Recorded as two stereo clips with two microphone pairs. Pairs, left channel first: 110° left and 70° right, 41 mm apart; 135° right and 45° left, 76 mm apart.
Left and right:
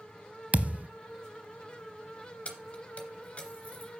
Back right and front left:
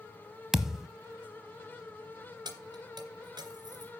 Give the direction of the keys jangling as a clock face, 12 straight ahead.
10 o'clock.